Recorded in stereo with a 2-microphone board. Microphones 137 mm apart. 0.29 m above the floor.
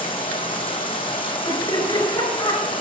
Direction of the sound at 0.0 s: 40° left (ahead or behind).